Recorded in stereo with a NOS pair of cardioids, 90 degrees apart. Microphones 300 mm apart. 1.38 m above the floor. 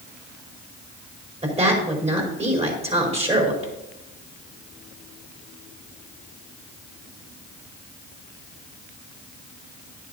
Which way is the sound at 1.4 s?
20° right.